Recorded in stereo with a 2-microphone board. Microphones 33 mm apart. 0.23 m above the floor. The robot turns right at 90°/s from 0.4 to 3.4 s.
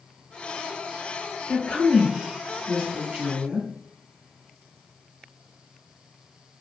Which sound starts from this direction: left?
A woman speaking, at 1.5 s.